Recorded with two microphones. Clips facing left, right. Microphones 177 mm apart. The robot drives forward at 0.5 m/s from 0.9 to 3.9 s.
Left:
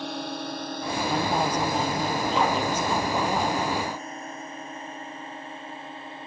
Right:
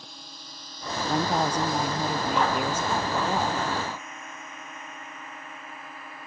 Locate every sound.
0.0 s a drone: 70° left (ahead or behind); by 6.3 s 25° left (ahead or behind)
1.1 s a woman speaking: 10° right (ahead or behind); by 3.5 s 5° right (ahead or behind)